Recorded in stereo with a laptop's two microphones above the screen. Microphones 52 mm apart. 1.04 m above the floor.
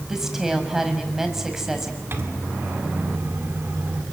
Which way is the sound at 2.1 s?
45° right (ahead or behind).